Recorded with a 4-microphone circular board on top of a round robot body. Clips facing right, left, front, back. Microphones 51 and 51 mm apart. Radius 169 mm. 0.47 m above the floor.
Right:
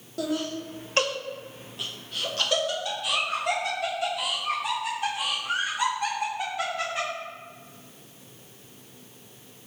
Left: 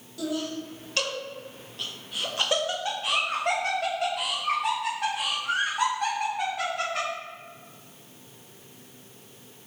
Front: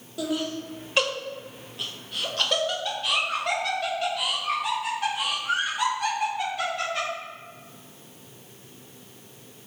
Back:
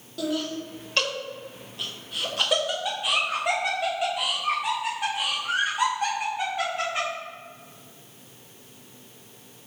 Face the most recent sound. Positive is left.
turn(degrees=110)